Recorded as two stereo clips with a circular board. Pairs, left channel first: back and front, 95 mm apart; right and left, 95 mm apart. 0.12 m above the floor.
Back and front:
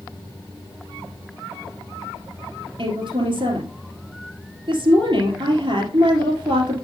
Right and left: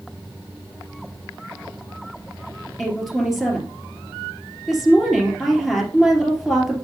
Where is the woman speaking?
Straight ahead, 2.5 m.